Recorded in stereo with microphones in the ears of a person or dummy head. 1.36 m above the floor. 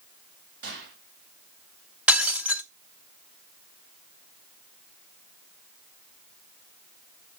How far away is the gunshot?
About 3 m.